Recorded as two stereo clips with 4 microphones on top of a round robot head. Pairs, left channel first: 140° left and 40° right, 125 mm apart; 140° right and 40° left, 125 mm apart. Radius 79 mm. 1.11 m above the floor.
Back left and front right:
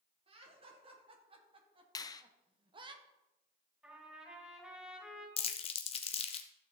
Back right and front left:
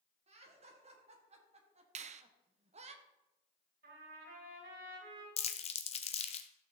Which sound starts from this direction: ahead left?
A trumpet, at 3.8 s.